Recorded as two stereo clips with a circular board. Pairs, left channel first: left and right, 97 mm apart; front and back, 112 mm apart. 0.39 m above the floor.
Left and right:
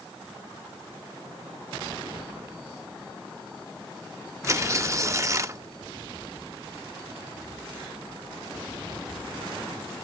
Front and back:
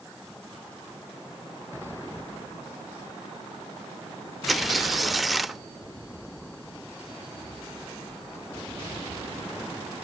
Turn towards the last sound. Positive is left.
turn(degrees=-90)